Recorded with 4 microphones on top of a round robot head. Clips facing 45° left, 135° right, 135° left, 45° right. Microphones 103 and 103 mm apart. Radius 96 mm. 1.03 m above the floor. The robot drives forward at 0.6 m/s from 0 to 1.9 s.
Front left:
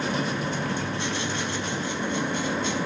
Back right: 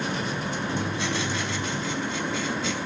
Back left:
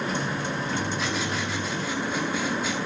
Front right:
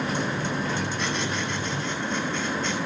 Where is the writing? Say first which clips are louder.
Back right 1 dB, even; 135° right, 5.5 m; by 2.8 s 140° right, 6 m.